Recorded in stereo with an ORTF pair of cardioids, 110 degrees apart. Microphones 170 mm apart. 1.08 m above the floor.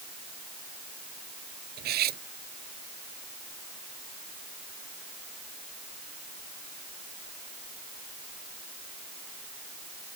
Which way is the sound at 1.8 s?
65° right.